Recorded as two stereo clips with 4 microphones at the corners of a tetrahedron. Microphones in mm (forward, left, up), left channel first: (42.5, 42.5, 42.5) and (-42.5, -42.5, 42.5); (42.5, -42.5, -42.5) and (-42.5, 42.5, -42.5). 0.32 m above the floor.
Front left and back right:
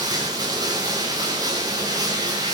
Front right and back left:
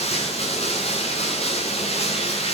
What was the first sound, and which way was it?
Running water, 80° right.